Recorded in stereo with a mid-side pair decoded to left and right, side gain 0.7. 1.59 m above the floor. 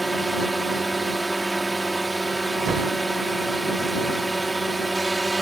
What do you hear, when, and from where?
0.0 s a drone: 10° right
2.7 s a thud: 40° right